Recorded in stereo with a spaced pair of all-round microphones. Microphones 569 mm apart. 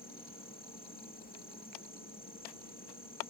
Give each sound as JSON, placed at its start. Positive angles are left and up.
{"t": 0.0, "sound": "an insect", "side_deg": 15}